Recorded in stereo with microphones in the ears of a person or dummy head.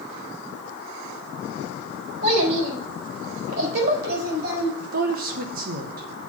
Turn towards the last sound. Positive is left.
turn(degrees=-55)  # may be behind; listen again after turning